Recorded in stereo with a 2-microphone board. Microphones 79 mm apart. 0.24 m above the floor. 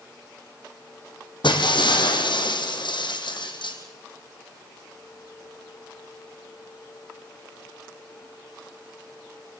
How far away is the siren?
No siren in this recording.